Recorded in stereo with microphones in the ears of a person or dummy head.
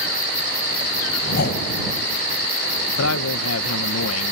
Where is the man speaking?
85° left.